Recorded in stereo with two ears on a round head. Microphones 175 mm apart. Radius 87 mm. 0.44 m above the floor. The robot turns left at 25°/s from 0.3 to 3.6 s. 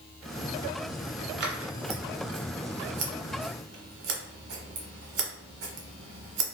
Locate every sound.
1.4 s scissors: 55° right (ahead or behind), 0.8 m; by 6.4 s 70° right (ahead or behind), 0.8 m